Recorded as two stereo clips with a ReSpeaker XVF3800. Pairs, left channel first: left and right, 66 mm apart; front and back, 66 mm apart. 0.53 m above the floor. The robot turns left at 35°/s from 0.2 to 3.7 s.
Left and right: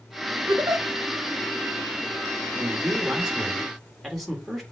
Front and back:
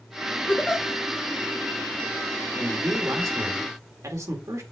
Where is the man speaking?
140° right, 1.7 m; by 4.6 s straight behind, 1.7 m.